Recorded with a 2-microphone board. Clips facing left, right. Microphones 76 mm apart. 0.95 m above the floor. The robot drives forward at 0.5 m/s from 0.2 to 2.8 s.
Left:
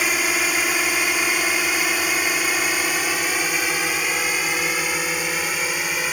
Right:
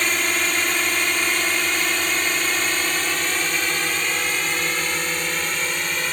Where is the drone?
5° left (ahead or behind).